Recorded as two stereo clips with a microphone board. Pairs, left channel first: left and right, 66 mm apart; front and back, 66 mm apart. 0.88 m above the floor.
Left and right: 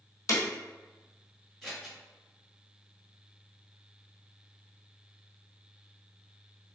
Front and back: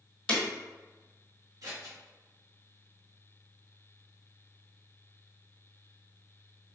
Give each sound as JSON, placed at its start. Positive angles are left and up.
{"t": 0.3, "sound": "breaking glass", "azimuth_deg": 70, "distance_m": 1.3}
{"t": 1.6, "sound": "scissors", "azimuth_deg": 175, "distance_m": 1.5}